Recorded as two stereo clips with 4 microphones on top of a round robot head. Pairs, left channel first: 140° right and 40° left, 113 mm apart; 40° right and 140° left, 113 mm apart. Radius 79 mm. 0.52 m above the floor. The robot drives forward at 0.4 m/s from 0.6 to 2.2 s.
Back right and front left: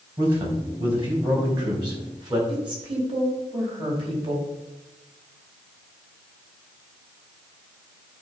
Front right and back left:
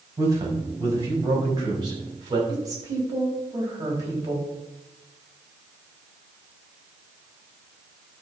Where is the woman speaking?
80° left, 4 m.